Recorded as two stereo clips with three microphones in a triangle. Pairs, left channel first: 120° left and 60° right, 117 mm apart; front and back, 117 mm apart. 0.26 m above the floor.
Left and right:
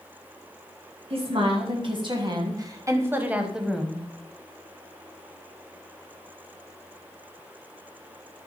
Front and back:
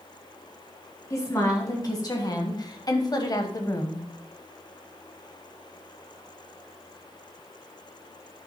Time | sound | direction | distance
1.1 | a woman speaking | 55° right | 1.9 m